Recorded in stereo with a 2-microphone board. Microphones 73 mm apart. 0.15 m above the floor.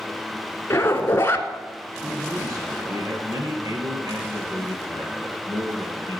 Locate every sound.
0.7 s a zipper: 30° left (ahead or behind), 1.2 m
2.0 s a man speaking: 60° right (ahead or behind), 3 m